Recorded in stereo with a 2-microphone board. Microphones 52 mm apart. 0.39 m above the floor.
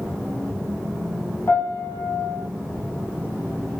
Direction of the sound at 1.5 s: 55° left (ahead or behind).